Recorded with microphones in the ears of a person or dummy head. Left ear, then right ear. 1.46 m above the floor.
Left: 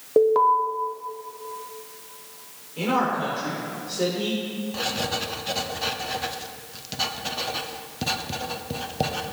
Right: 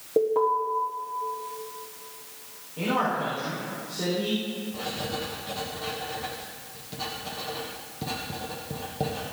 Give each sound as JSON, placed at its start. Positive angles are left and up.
{"t": 0.2, "sound": "an alarm", "side_deg": 45, "distance_m": 1.5}
{"t": 2.8, "sound": "a man speaking", "side_deg": 70, "distance_m": 4.5}
{"t": 4.7, "sound": "writing", "side_deg": 60, "distance_m": 1.2}